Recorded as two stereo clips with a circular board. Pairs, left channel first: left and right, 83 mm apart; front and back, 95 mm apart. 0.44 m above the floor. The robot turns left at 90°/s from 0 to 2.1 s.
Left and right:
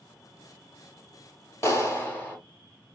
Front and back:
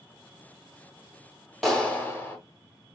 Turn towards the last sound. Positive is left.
turn(degrees=45)